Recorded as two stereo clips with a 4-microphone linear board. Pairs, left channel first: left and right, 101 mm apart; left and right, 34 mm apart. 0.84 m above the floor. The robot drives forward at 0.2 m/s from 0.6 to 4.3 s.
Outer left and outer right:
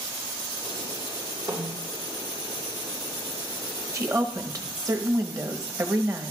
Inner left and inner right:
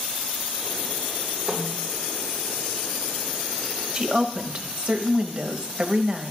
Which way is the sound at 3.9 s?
35° right (ahead or behind).